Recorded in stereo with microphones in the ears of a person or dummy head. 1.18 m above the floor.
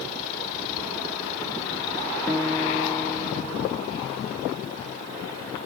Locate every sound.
2.3 s a guitar: 5° left (ahead or behind)